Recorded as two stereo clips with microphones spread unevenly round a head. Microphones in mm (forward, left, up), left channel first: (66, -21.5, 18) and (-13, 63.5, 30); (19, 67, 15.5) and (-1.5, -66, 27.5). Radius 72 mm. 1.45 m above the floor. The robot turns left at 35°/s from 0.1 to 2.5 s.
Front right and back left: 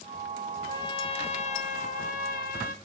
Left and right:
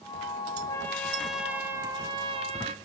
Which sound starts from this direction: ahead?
A trumpet, at 0.7 s.